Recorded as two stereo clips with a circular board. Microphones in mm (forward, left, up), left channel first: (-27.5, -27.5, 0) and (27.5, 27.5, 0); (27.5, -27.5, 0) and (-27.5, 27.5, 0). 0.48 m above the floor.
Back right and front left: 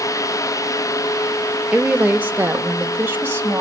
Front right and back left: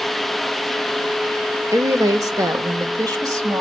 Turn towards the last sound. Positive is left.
turn(degrees=100)